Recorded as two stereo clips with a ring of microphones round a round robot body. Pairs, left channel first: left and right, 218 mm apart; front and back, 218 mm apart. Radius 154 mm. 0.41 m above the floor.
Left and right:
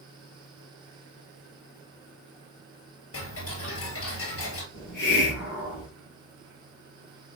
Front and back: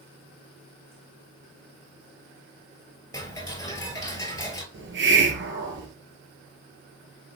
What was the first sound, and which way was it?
Ticking, 75° left.